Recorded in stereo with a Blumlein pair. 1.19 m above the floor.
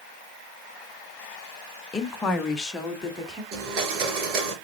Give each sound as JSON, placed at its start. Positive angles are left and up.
{"t": 1.9, "sound": "a woman speaking", "azimuth_deg": 15, "distance_m": 0.8}
{"t": 3.5, "sound": "a blender", "azimuth_deg": -40, "distance_m": 3.5}